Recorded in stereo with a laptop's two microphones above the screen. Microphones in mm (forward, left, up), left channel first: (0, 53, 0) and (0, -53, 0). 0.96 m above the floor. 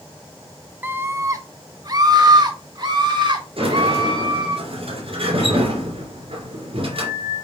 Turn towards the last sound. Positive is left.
turn(degrees=-60)  # may be behind; listen again after turning